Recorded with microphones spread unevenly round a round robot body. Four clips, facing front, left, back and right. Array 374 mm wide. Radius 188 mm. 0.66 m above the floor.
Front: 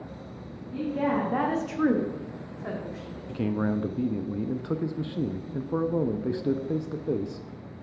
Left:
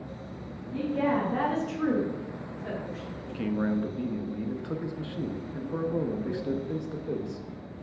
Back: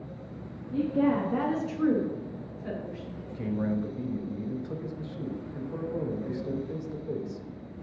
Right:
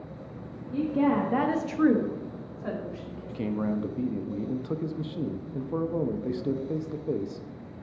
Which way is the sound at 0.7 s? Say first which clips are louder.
Right 2 dB, back 2 dB; 160° right.